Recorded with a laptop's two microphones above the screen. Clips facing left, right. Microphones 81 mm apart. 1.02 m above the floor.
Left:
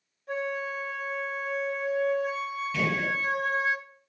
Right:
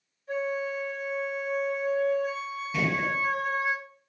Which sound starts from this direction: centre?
A gunshot, at 2.7 s.